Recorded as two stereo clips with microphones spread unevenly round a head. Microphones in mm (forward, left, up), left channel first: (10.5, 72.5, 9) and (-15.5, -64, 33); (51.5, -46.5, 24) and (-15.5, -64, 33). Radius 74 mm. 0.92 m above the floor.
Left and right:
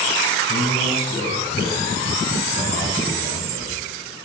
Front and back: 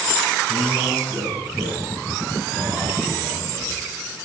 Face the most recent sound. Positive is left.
turn(degrees=100)